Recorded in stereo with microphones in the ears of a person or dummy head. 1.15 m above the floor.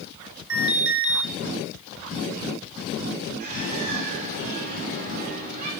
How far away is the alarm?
About 3.5 m.